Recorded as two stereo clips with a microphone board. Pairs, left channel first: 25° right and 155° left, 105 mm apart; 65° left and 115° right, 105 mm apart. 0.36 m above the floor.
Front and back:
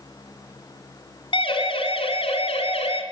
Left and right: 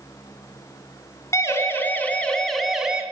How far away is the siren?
About 4 m.